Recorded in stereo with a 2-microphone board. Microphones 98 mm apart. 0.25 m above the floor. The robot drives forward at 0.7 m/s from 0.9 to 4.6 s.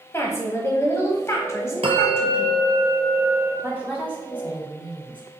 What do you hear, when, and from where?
0.1 s a woman speaking: 25° left (ahead or behind), 1.2 m
1.8 s a bell: 80° right, 0.8 m; by 3.5 s 30° right (ahead or behind), 1.6 m
3.6 s a woman speaking: 20° right (ahead or behind), 1.8 m; by 5.2 s 15° right (ahead or behind), 2 m